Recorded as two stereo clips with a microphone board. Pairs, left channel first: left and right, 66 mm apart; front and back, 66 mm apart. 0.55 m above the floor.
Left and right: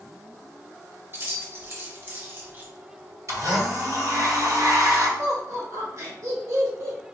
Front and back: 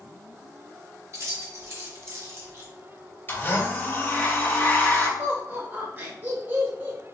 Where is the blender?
60° right, 2 m.